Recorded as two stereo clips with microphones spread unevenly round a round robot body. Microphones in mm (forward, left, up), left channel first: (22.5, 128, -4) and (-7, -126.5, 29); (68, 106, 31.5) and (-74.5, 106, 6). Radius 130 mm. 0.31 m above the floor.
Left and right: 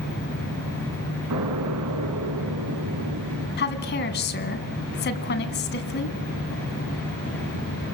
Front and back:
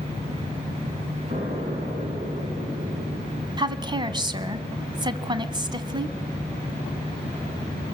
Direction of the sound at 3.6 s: 130° left.